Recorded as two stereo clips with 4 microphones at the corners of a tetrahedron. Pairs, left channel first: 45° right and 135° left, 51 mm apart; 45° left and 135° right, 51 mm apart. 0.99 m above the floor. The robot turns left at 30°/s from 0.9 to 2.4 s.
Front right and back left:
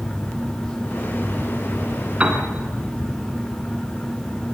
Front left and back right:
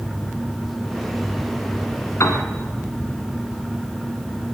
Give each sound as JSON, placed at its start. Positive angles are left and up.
{"t": 2.2, "sound": "a piano", "azimuth_deg": 70, "distance_m": 2.5}